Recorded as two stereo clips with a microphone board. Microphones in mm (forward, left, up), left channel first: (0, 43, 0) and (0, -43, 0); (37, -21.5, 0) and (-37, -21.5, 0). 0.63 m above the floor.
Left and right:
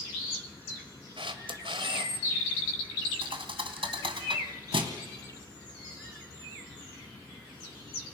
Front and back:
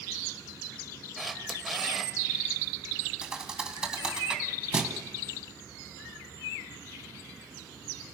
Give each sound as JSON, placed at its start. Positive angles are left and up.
{"t": 1.2, "sound": "a camera shutter", "azimuth_deg": -90, "distance_m": 2.0}
{"t": 3.2, "sound": "a thud", "azimuth_deg": -100, "distance_m": 2.5}